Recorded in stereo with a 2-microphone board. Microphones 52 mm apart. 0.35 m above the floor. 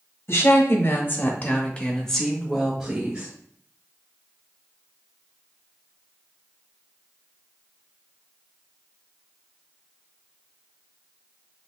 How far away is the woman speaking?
About 1.4 m.